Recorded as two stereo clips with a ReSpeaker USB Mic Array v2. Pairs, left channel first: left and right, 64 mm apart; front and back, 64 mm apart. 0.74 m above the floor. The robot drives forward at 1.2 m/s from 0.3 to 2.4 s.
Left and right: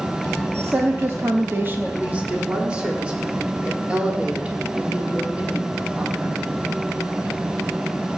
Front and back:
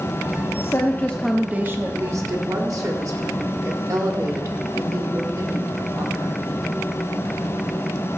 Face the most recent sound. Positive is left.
turn(degrees=-160)